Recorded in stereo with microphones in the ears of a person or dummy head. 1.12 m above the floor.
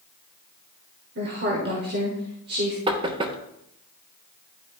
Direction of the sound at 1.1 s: 50° right (ahead or behind).